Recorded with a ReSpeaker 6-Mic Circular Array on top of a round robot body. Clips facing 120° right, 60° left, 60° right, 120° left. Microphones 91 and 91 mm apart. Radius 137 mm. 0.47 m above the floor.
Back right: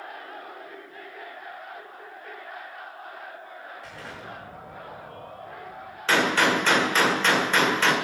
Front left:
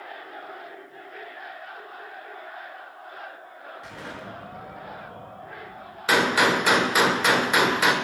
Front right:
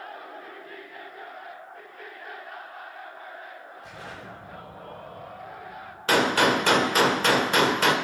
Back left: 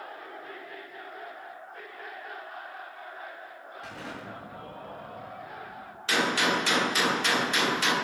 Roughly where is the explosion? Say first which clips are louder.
Front left 2 dB, back left 2 dB; behind left.